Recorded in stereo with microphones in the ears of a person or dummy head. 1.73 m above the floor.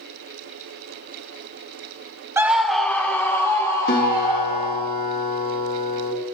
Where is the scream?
10° right (ahead or behind), 0.8 m; by 4.9 s 20° left (ahead or behind), 3.5 m.